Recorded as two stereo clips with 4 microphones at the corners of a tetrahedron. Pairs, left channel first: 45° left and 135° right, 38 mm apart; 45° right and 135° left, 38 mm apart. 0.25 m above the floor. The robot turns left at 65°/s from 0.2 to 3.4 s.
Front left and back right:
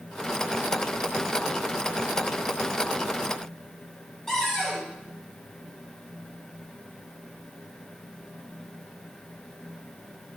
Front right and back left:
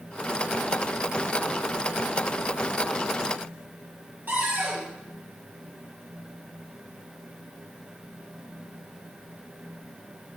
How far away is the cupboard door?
About 3 m.